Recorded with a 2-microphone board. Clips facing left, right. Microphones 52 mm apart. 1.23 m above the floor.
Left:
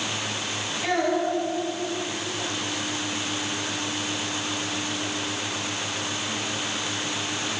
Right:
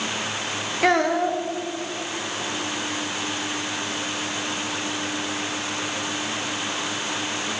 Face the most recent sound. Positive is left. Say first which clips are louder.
# right 4 dB
turn(degrees=-65)  # may be behind; listen again after turning